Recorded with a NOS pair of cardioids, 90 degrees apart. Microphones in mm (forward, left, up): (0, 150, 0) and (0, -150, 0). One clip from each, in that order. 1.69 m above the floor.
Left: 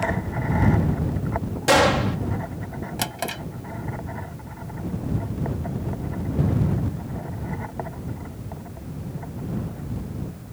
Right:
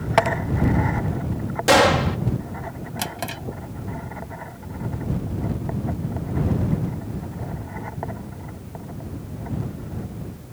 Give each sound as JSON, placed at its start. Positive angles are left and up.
{"t": 1.7, "sound": "a gunshot", "azimuth_deg": -10}
{"t": 3.0, "sound": "a drawer", "azimuth_deg": 15}